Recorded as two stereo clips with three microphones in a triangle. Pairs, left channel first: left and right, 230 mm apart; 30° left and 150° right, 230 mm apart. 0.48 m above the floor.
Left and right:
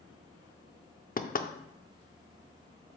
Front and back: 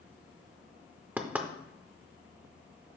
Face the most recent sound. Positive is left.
turn(degrees=130)